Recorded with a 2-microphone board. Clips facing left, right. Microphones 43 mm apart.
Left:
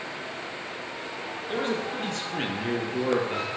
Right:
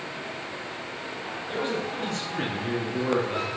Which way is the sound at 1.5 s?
35° left (ahead or behind).